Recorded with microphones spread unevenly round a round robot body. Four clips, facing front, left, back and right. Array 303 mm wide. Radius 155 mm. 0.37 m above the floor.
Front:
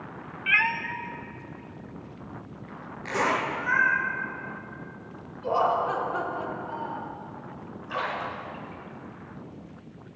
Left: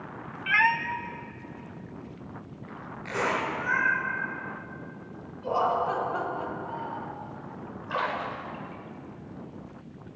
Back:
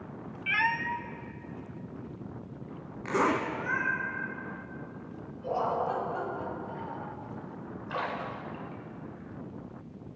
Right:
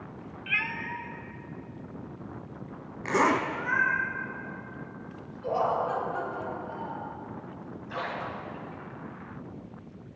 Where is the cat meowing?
35° left, 0.5 m; by 4.0 s 145° left, 4 m.